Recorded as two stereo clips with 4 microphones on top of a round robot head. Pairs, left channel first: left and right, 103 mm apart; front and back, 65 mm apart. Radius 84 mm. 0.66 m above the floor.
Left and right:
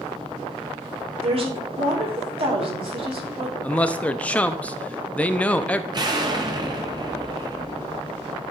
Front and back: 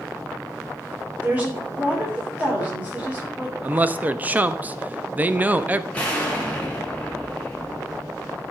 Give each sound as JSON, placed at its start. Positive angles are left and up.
{"t": 1.2, "sound": "a woman speaking", "azimuth_deg": -110, "distance_m": 2.5}
{"t": 3.6, "sound": "a man speaking", "azimuth_deg": 150, "distance_m": 0.6}
{"t": 5.9, "sound": "an explosion", "azimuth_deg": -60, "distance_m": 1.5}